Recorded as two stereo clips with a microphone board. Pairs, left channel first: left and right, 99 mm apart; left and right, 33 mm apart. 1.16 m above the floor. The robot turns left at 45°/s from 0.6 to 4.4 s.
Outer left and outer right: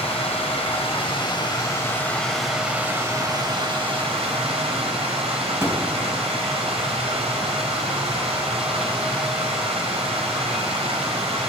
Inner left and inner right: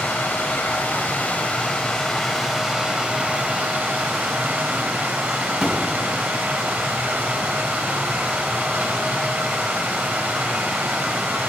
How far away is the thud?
About 3 m.